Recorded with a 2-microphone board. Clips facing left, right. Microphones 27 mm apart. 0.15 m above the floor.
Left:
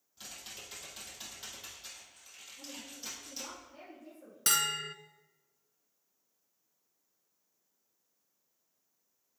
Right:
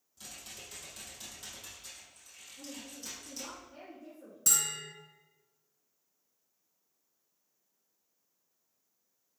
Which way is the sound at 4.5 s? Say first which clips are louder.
Left 3 dB; 50° left (ahead or behind).